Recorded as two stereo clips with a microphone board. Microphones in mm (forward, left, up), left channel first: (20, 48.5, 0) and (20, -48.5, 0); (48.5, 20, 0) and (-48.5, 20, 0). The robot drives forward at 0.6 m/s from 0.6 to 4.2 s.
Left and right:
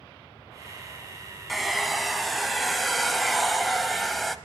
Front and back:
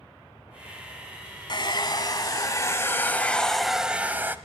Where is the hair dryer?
Straight ahead, 1.6 m; by 4.4 s straight behind, 1.0 m.